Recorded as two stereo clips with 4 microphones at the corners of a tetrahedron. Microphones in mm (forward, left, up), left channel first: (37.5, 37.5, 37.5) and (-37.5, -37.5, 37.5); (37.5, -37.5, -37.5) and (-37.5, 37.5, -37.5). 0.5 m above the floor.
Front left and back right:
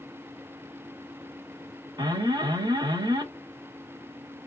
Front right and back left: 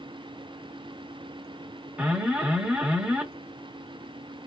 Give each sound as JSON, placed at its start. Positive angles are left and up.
{"t": 2.0, "sound": "an alarm", "azimuth_deg": -155, "distance_m": 1.2}